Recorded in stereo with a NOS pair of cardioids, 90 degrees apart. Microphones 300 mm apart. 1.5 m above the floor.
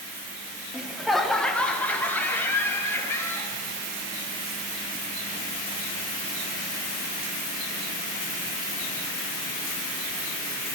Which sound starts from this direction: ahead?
Laughter, at 0.7 s.